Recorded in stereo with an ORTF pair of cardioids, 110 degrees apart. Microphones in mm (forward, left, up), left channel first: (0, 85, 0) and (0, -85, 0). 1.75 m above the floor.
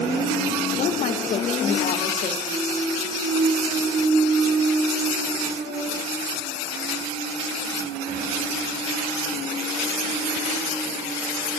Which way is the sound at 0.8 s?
45° left.